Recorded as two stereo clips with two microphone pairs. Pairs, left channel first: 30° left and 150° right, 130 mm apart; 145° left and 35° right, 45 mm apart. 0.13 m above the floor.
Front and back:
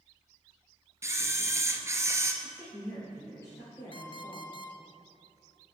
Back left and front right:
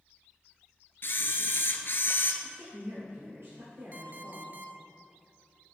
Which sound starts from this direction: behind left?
A camera shutter, at 1.0 s.